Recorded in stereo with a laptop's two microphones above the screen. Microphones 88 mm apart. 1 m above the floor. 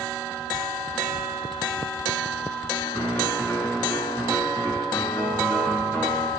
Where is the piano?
15° left (ahead or behind), 3.5 m.